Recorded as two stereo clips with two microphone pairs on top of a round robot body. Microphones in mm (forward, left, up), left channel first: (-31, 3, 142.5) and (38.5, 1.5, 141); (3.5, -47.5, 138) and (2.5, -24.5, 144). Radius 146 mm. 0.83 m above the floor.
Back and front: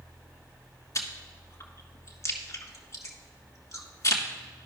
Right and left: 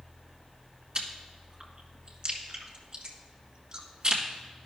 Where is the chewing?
150° left, 1.5 m.